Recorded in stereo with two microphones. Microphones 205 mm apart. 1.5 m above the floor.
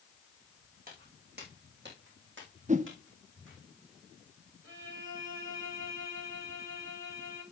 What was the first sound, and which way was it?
Footsteps, 40° right (ahead or behind).